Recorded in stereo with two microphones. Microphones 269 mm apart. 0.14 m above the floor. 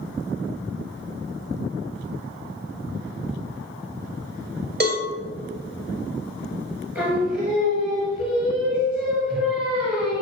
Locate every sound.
4.8 s a cowbell: 35° right (ahead or behind), 2 m
7.0 s singing: centre (ahead or behind), 3.5 m